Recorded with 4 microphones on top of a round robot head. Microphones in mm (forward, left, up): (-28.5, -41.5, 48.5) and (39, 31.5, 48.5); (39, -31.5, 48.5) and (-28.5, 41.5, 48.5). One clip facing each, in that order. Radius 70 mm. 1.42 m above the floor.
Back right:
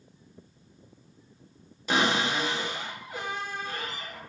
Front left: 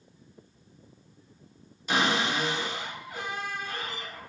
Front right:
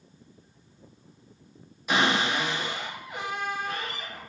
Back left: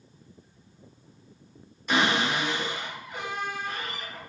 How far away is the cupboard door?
About 1.2 m.